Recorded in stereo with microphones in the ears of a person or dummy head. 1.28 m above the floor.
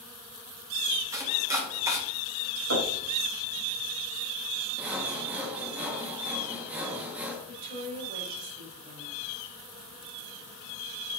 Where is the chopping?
15° right (ahead or behind), 2 m.